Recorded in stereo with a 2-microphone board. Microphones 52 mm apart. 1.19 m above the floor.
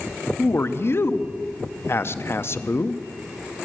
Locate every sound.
0.4 s a man speaking: 50° left (ahead or behind), 0.6 m